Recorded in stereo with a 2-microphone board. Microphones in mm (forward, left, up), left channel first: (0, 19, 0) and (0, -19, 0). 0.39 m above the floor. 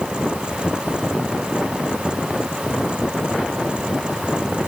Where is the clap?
I don't hear a clap.